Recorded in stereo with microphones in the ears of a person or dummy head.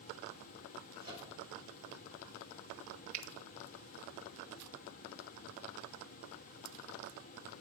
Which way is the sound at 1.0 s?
55° left (ahead or behind).